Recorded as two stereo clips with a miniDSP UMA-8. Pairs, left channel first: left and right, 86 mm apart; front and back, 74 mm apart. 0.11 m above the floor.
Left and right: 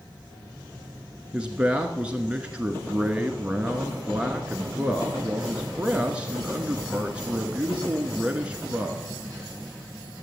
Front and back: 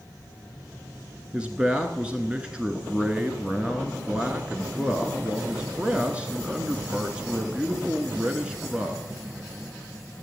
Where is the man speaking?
135° right, 1.1 m.